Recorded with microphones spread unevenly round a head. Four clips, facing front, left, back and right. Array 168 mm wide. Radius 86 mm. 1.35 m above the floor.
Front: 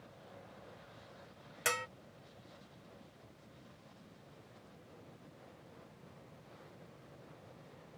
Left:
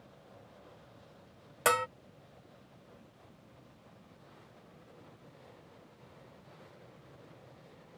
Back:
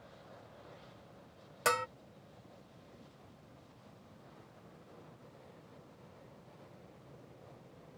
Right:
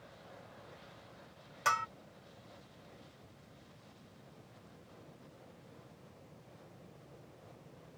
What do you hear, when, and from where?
1.6 s a bell: 110° left